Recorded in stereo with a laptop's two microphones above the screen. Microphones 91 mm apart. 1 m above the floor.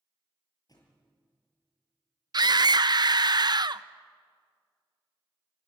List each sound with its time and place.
0.7 s a thud: 45° left (ahead or behind), 7 m
2.3 s a scream: 50° right (ahead or behind), 0.6 m